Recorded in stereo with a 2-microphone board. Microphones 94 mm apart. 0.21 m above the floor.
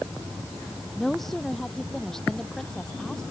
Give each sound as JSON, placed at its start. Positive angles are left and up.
{"t": 1.0, "sound": "a woman speaking", "side_deg": 5}